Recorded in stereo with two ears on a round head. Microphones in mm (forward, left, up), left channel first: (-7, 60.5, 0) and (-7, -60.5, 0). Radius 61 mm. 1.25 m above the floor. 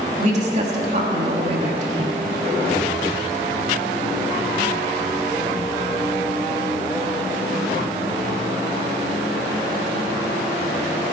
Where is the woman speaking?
50° right (ahead or behind), 3 m.